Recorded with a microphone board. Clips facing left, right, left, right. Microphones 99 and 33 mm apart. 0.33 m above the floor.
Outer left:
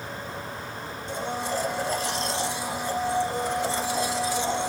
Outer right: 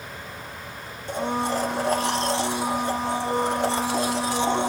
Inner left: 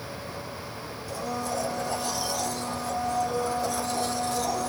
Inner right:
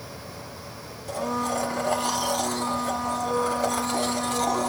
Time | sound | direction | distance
1.1 | a blender | 55° right (ahead or behind) | 0.8 m